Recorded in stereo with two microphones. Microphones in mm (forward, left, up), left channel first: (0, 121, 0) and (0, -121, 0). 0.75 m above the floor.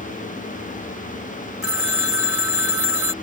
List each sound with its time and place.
1.6 s a phone ringing: 60° left (ahead or behind)